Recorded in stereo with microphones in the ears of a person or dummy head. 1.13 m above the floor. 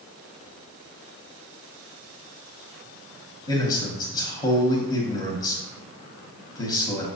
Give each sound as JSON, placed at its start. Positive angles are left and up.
{"t": 3.5, "sound": "a man speaking", "side_deg": 15, "distance_m": 0.8}